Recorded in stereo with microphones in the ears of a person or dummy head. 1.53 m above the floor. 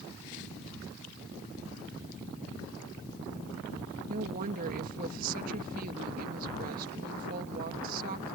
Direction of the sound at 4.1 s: 55° right (ahead or behind).